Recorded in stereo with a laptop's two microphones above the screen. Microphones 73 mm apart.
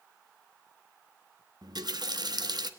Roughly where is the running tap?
Right.